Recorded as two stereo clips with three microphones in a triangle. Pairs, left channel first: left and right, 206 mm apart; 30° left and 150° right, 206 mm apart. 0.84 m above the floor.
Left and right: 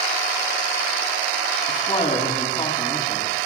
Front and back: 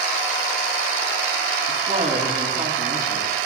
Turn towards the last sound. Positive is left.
turn(degrees=155)